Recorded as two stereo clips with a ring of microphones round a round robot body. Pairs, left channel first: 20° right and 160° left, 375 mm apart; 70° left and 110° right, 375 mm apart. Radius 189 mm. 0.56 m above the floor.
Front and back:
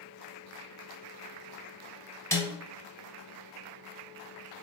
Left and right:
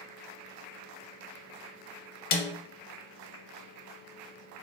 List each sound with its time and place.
2.3 s a snare drum: 60° left, 0.5 m